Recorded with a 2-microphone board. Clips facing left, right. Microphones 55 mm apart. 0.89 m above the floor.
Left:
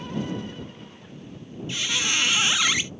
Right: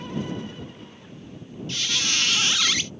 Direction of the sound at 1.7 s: 15° left (ahead or behind).